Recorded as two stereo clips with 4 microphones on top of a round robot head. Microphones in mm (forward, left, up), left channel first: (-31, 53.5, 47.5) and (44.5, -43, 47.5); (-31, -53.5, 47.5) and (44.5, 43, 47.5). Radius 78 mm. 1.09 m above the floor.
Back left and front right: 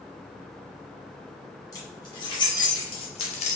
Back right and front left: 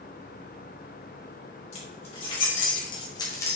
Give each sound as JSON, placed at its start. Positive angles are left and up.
{"t": 1.7, "sound": "keys jangling", "azimuth_deg": -170, "distance_m": 3.5}